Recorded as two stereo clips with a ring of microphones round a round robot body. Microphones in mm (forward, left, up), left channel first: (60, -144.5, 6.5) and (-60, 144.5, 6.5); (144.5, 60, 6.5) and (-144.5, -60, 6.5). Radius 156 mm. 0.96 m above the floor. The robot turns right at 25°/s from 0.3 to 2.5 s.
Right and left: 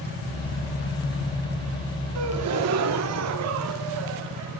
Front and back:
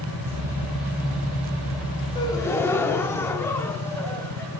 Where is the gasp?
95° left, 0.6 m; by 4.6 s 100° left, 0.6 m.